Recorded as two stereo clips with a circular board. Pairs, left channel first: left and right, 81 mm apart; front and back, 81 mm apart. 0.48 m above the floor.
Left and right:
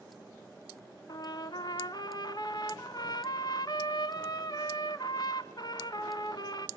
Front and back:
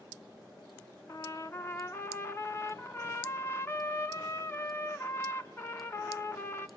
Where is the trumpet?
60° left, 0.9 m.